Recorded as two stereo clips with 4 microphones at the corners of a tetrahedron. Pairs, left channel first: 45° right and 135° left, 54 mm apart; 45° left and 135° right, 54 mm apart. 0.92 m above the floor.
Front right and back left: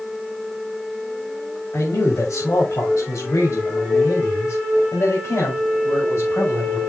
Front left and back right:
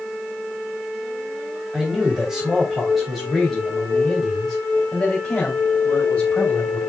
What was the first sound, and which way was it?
A man speaking, 55° right.